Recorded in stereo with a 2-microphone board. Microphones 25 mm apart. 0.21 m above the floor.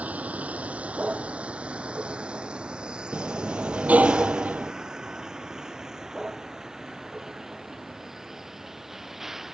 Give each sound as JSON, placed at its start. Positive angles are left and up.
{"t": 0.0, "sound": "a vehicle", "side_deg": -70}
{"t": 3.1, "sound": "a sliding door", "side_deg": -80}